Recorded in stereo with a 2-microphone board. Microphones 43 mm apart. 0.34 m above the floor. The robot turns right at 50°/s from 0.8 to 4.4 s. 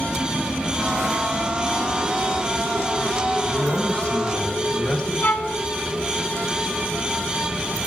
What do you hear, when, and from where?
3.5 s a man speaking: 110° left, 2 m; by 5.1 s 155° left, 2 m
5.2 s a violin: 40° left (ahead or behind), 1.9 m